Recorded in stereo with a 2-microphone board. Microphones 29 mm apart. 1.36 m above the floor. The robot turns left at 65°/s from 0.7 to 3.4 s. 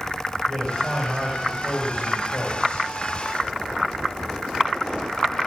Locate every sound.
0.5 s a man speaking: 145° right, 7 m; by 2.9 s 75° left, 7 m